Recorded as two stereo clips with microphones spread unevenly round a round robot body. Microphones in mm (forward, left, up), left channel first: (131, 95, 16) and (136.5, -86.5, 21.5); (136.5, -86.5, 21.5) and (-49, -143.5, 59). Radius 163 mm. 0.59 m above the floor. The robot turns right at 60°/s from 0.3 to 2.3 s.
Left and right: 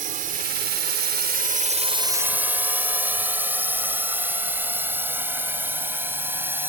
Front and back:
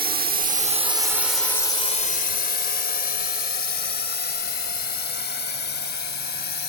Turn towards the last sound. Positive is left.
turn(degrees=-10)